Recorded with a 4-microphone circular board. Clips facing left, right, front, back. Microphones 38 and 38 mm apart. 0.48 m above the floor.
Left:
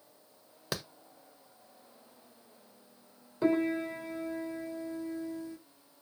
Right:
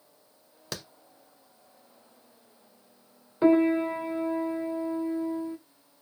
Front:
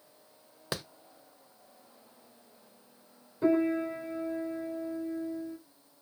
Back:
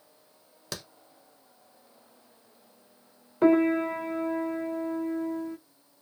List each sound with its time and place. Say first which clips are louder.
0.7 s a clap: left 2 dB, front 3 dB; 30° left, 0.6 m
3.4 s a piano: right 8 dB, back 5 dB; 150° right, 0.5 m